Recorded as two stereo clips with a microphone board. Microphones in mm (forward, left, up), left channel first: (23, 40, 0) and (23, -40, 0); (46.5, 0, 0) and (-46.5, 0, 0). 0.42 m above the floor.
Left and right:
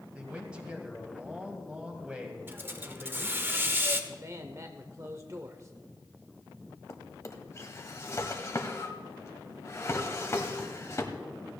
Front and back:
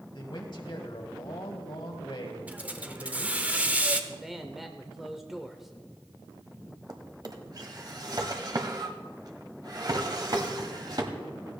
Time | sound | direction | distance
0.1 | a man speaking | 15° right | 2 m
2.5 | a hiss | 120° right | 0.9 m
4.1 | a man speaking | 95° right | 1.0 m
6.9 | a drawer | 140° left | 1.3 m